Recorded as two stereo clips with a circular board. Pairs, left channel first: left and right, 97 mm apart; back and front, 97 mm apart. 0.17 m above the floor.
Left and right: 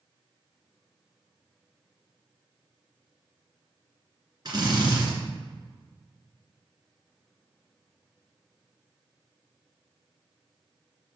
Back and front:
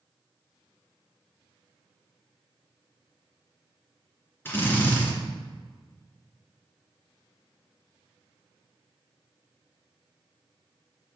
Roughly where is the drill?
Behind right.